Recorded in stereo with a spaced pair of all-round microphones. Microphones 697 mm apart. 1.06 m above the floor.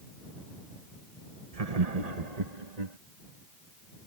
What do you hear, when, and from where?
1.5 s laughter: 55° right (ahead or behind); by 3.0 s 75° right (ahead or behind)